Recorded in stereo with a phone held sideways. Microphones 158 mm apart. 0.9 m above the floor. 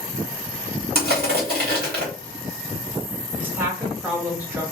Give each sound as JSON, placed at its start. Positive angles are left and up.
{"t": 0.9, "sound": "crushing", "side_deg": -75, "distance_m": 1.6}
{"t": 3.4, "sound": "a woman speaking", "side_deg": -10, "distance_m": 1.2}